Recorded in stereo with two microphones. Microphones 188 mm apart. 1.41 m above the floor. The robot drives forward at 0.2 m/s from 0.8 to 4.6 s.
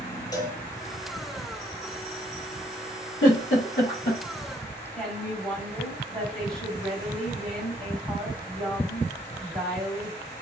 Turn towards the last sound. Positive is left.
turn(degrees=-5)  # may be behind; listen again after turning